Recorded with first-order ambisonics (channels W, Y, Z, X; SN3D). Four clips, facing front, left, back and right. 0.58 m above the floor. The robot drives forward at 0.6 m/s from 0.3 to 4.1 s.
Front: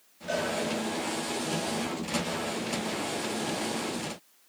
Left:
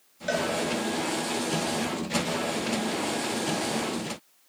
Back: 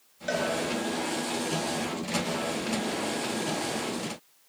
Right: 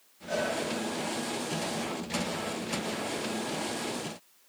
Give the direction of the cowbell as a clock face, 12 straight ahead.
8 o'clock.